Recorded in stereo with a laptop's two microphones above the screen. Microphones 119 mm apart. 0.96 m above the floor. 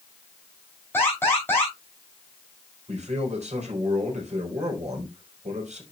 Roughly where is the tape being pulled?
I don't hear tape being pulled.